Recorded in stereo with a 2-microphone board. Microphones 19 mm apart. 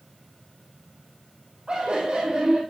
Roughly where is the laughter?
Right.